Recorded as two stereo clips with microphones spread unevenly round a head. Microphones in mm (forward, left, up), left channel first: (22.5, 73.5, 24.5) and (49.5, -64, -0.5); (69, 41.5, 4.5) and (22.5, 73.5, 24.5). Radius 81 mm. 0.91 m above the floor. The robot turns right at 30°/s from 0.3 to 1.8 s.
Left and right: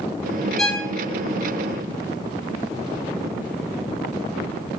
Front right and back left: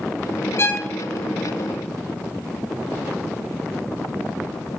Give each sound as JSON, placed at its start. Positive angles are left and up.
{"t": 0.6, "sound": "a violin", "azimuth_deg": 20, "distance_m": 0.6}